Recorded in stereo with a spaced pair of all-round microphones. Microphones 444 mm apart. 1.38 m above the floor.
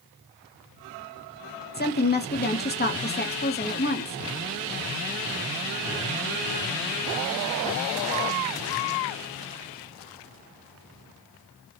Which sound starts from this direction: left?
A woman speaking, at 1.7 s.